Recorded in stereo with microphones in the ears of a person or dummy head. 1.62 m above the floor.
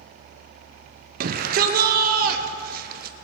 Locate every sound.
1.2 s a shout: 55° right (ahead or behind), 0.8 m